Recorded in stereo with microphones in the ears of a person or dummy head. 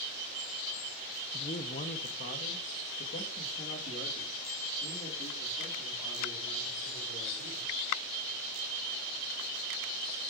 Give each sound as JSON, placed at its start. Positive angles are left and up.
{"t": 1.3, "sound": "a man speaking", "side_deg": 25, "distance_m": 0.7}